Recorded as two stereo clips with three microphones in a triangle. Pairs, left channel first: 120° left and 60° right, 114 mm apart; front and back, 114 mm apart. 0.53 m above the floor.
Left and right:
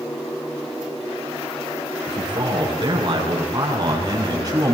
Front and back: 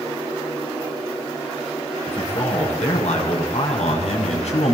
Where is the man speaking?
15° right, 7.5 m; by 4.8 s straight ahead, 5 m.